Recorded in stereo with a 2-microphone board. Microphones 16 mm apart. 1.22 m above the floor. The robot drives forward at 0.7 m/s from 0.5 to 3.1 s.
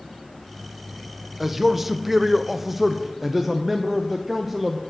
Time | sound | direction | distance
1.4 | a man speaking | 10° right (ahead or behind) | 0.9 m